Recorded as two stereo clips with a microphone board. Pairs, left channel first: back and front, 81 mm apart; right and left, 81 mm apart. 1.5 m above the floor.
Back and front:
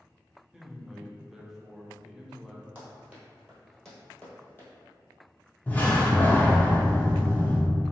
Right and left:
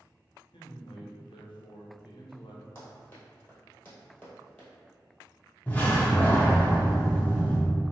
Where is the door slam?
140° right, 0.7 m.